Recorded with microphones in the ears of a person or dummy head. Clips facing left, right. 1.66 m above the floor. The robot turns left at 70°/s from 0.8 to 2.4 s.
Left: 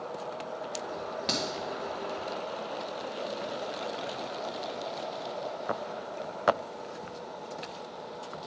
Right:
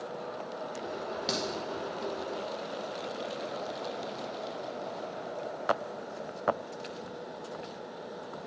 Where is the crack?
5° right (ahead or behind), 1.4 m; by 1.4 s 15° right (ahead or behind), 1.4 m.